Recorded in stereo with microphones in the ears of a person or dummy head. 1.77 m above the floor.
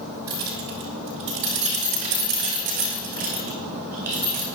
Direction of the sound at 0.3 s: 15° right (ahead or behind).